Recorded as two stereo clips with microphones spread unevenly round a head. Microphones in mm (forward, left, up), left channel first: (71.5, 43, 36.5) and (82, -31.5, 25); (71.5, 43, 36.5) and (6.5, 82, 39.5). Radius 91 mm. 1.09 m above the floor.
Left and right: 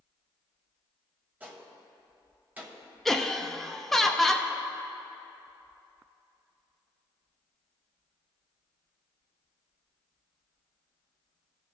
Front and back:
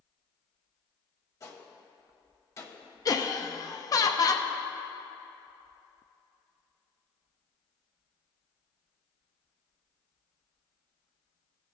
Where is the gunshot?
20° right, 1.0 m.